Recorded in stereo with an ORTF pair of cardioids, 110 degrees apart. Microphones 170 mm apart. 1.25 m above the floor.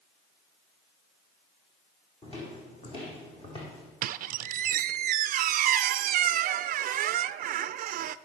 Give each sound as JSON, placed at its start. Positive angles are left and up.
{"t": 2.2, "sound": "footsteps", "azimuth_deg": 35, "distance_m": 4.0}
{"t": 4.0, "sound": "a squeak", "azimuth_deg": -55, "distance_m": 0.5}